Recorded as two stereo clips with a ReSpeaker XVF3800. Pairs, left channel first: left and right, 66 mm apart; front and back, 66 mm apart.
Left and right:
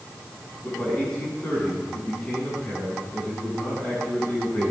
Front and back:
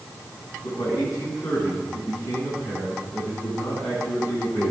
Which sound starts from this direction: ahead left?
A man speaking, at 0.6 s.